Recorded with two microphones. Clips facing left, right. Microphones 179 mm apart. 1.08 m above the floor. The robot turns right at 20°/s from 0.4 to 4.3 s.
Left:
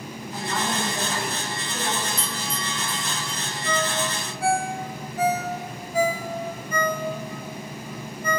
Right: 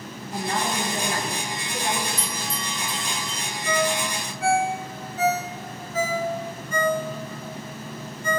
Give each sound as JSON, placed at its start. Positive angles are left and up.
{"t": 0.3, "sound": "a woman speaking", "azimuth_deg": -70, "distance_m": 3.5}
{"t": 2.2, "sound": "a bell", "side_deg": -15, "distance_m": 1.7}
{"t": 3.6, "sound": "a ringtone", "side_deg": 50, "distance_m": 3.0}